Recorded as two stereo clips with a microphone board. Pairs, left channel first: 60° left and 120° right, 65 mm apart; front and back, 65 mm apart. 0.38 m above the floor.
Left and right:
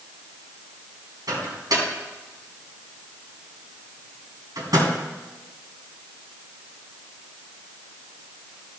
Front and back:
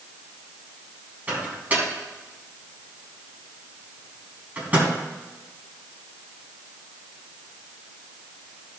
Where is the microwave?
115° right, 3.5 m.